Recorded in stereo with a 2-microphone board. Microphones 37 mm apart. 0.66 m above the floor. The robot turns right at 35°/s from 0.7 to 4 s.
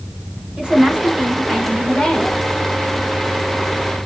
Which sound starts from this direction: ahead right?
A woman speaking, at 0.6 s.